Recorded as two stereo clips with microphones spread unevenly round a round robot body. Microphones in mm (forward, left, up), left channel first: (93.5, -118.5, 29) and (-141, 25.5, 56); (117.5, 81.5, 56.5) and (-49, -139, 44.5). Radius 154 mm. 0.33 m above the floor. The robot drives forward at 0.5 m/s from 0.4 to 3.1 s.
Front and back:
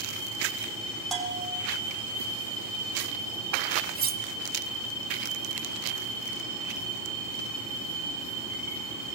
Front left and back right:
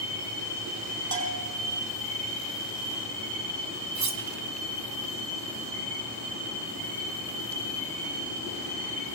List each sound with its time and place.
1.1 s a bell: 120° right, 3.5 m
4.0 s cutlery clinking: 150° right, 1.5 m